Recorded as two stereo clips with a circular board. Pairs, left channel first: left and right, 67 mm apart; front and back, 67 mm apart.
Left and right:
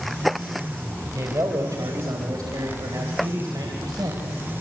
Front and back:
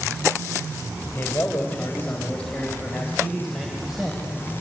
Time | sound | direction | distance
1.1 | a man speaking | 55° right | 3 m